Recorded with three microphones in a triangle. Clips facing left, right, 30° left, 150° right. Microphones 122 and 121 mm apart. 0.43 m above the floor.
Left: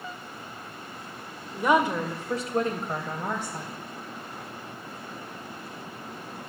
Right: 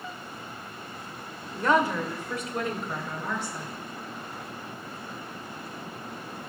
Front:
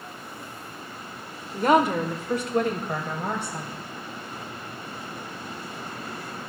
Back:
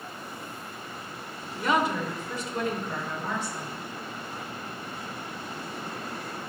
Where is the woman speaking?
10° left, 1.1 m; by 3.7 s 55° left, 2.5 m.